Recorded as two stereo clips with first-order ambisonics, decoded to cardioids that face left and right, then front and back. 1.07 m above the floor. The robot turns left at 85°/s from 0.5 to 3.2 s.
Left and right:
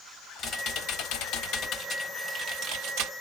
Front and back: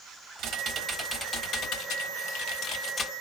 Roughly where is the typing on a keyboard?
Behind left.